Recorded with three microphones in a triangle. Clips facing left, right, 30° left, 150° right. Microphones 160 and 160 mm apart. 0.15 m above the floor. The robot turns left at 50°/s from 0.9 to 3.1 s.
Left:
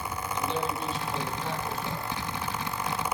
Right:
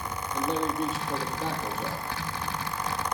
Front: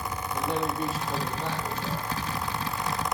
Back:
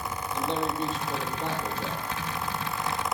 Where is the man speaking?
50° right, 5 m; by 2.1 s 110° right, 5 m.